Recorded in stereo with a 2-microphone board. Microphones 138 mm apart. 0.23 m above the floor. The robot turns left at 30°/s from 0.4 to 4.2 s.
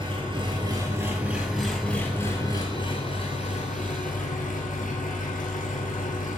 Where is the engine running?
145° right, 1.5 m; by 6.4 s 105° left, 1.5 m.